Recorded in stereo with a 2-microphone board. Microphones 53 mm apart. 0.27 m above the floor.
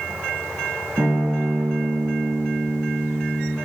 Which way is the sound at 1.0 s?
70° right (ahead or behind).